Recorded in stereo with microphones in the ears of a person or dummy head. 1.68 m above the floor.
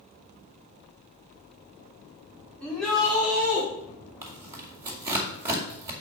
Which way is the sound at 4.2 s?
15° right (ahead or behind).